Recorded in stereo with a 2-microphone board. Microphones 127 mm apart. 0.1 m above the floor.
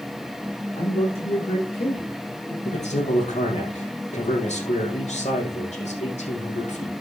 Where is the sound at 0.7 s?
50° left (ahead or behind), 7.5 m; by 2.5 s 45° left (ahead or behind), 5.5 m.